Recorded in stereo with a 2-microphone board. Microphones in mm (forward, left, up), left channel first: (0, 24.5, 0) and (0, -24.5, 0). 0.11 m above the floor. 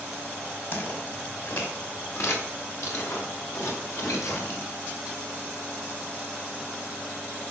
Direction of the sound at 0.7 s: 50° left (ahead or behind).